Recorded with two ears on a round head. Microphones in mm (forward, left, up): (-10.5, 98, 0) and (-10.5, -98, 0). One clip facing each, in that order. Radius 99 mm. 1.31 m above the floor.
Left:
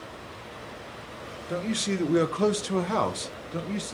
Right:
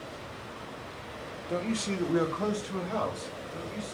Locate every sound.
1.5 s a man speaking: 10° left (ahead or behind), 1.0 m; by 3.9 s 75° left (ahead or behind), 1.1 m